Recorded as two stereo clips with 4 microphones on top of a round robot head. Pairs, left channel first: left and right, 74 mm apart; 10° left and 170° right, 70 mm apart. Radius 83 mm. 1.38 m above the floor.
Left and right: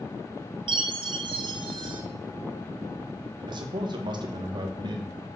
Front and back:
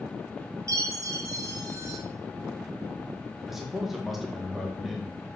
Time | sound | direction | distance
0.7 | a chime | 115° right | 0.6 m
3.5 | a man speaking | 85° right | 2.0 m